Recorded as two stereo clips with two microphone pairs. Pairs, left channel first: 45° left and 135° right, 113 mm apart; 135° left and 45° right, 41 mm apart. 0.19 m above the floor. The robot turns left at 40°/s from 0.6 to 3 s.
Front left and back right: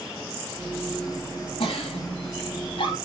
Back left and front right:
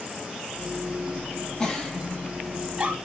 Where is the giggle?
60° left, 5 m; by 3.0 s 5° left, 5 m.